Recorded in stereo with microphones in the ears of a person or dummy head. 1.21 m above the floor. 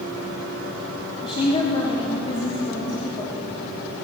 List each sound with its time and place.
1.2 s a woman speaking: 30° left (ahead or behind), 3 m